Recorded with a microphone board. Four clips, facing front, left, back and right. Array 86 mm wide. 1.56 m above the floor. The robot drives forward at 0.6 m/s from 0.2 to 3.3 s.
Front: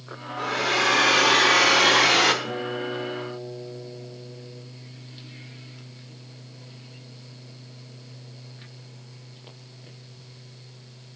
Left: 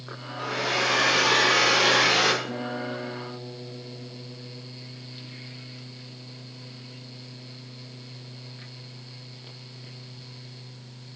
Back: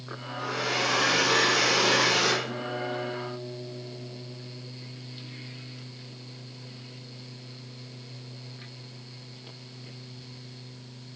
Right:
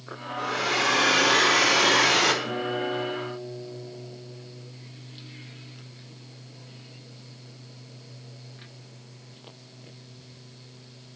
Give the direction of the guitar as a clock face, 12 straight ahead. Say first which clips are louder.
Right 3 dB, front 3 dB; 11 o'clock.